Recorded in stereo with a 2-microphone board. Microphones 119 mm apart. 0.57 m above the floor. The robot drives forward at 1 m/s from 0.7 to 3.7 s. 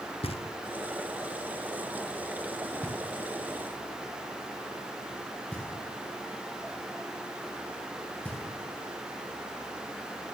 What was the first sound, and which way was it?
Knocking, 50° left (ahead or behind).